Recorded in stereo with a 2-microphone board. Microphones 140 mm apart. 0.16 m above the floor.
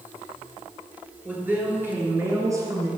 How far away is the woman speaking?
About 2.5 m.